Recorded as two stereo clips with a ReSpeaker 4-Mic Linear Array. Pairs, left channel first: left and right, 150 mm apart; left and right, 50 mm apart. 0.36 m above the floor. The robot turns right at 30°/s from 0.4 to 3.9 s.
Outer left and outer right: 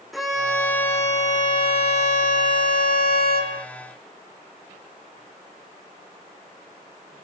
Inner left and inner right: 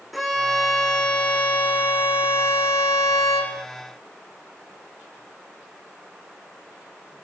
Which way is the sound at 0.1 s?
Straight ahead.